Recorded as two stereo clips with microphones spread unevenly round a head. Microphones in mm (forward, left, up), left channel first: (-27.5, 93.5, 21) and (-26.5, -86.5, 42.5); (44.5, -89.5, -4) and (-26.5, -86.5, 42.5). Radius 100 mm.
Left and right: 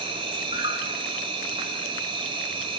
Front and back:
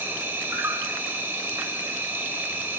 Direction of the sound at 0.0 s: 145° right.